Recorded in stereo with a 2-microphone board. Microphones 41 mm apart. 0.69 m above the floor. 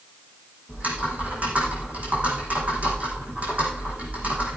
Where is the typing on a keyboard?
40° right (ahead or behind), 5 m.